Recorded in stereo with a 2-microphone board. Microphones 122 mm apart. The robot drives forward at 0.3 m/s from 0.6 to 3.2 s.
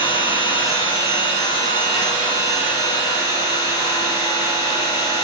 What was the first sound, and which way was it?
An engine running, 50° left (ahead or behind).